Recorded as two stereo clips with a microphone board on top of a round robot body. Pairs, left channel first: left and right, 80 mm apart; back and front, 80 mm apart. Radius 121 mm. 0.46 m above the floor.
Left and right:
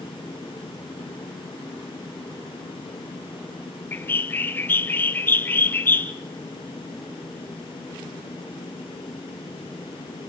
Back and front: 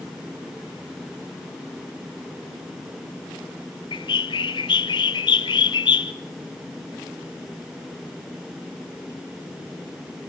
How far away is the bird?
About 0.7 m.